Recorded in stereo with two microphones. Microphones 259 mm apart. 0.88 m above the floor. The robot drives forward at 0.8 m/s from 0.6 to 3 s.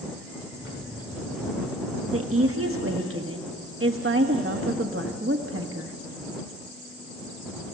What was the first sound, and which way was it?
A woman speaking, 60° right (ahead or behind).